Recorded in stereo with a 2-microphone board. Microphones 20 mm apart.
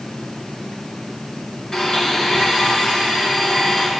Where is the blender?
45° left (ahead or behind), 3 m.